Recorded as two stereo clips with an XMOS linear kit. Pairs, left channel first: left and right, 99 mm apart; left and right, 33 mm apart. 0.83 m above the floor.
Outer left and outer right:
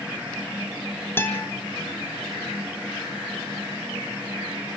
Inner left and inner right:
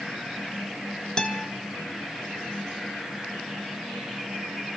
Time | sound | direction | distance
1.2 | a guitar | 20° left (ahead or behind) | 2.0 m